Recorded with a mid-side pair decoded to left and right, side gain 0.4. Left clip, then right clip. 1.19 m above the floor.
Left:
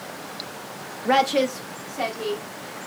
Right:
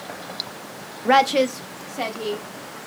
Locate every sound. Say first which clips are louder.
1.1 s a woman speaking: right 3 dB; 35° right, 0.6 m; by 2.8 s 20° right, 2.5 m